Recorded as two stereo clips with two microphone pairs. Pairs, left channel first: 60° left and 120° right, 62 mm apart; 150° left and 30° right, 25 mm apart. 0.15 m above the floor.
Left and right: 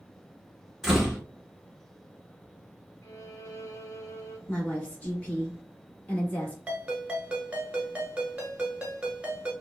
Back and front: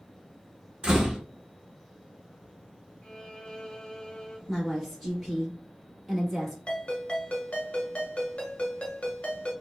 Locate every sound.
0.8 s a door slam: 40° right, 0.9 m
3.0 s a violin: 95° left, 0.6 m
4.5 s a woman speaking: 50° left, 1.1 m
6.7 s a ringtone: 170° left, 0.8 m